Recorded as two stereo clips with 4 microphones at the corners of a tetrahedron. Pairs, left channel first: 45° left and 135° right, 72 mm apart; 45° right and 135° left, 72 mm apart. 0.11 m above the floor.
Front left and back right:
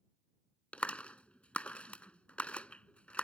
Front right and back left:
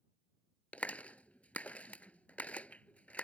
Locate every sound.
0.7 s a clap: 5° right